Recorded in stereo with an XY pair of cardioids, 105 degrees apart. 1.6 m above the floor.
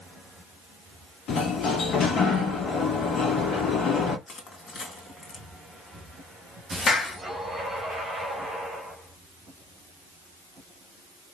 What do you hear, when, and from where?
1.3 s a sliding door: 65° left, 1.8 m
4.3 s crushing: 45° left, 2.5 m
6.9 s a clap: 55° left, 2.0 m